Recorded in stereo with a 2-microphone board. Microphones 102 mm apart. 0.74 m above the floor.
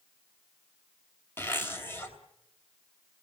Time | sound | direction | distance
1.4 | a zipper | 25° left (ahead or behind) | 2.5 m